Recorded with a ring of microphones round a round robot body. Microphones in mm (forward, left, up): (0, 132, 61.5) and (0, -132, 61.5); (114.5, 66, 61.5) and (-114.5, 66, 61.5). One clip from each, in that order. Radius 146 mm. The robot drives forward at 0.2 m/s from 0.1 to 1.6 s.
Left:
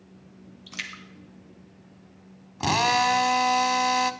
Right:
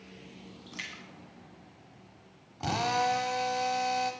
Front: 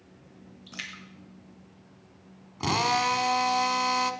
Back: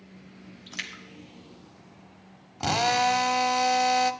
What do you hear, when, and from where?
0.7 s a splash: 160° left, 2.5 m
2.6 s a drill: 120° left, 0.8 m